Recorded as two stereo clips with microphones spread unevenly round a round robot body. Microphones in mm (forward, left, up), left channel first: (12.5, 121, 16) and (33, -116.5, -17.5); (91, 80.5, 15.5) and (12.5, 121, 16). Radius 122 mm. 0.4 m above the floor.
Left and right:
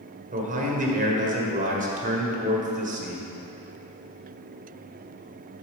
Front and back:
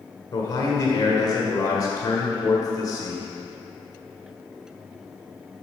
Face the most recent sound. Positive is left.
turn(degrees=-55)